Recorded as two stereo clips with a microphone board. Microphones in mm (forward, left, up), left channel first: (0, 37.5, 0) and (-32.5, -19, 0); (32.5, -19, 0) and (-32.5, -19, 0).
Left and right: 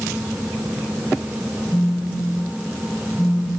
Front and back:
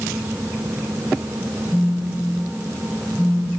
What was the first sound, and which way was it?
A phone buzzing, 15° right.